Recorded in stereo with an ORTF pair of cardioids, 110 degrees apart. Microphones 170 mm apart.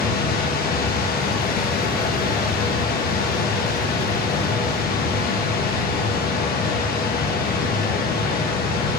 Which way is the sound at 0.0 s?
65° left.